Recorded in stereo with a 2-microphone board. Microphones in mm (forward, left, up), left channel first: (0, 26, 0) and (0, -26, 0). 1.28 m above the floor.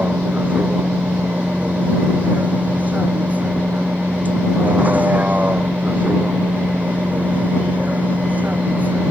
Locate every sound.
0.0 s a vehicle: 30° right (ahead or behind)